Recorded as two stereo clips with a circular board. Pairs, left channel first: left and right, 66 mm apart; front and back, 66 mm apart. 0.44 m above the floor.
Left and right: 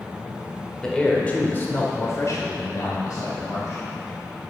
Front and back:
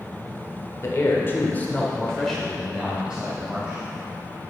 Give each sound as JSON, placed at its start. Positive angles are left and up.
{"t": 0.8, "sound": "a man speaking", "azimuth_deg": 15, "distance_m": 1.5}